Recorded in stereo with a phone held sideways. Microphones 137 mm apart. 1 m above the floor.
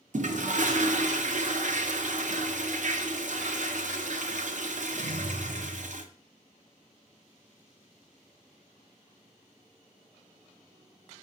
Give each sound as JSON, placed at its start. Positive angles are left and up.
{"t": 0.1, "sound": "a toilet flushing", "side_deg": -65, "distance_m": 0.5}